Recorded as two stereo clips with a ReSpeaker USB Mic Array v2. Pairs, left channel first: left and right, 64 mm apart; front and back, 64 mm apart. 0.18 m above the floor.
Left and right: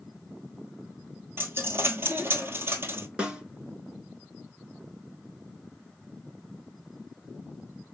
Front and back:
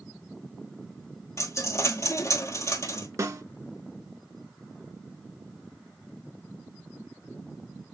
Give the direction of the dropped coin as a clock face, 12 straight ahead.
1 o'clock.